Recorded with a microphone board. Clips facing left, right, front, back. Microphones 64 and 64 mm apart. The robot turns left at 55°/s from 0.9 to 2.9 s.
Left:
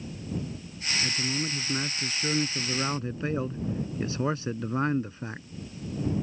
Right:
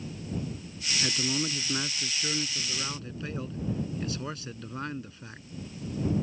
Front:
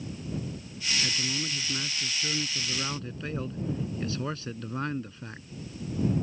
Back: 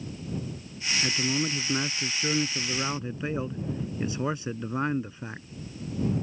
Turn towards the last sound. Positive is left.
turn(degrees=125)